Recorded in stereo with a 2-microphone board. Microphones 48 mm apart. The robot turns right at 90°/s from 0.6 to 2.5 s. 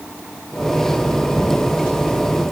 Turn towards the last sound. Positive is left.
No sound to turn to.